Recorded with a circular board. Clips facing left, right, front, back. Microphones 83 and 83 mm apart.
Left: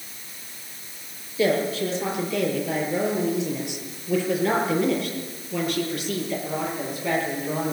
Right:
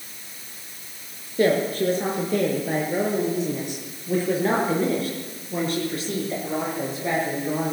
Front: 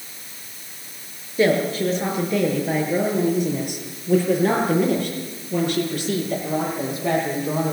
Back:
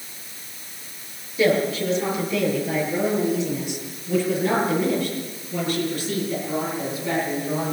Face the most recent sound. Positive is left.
turn(degrees=-25)